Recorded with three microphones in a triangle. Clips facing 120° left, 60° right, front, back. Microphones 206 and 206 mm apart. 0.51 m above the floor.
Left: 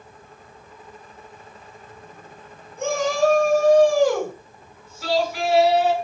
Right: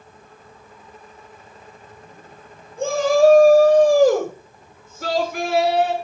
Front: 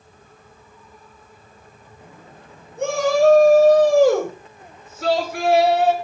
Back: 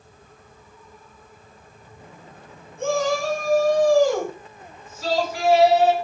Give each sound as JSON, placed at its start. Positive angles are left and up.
{"t": 2.8, "sound": "a shout", "azimuth_deg": 0, "distance_m": 8.5}